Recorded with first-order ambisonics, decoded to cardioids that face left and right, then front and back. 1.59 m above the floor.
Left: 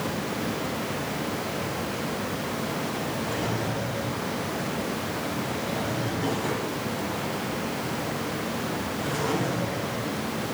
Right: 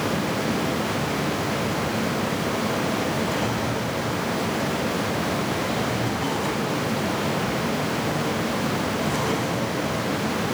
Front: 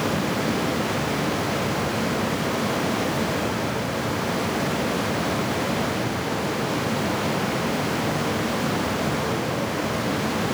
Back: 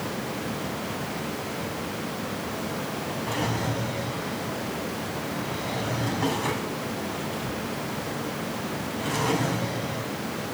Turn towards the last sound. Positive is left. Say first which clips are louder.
# right 4 dB, front 3 dB
turn(degrees=-155)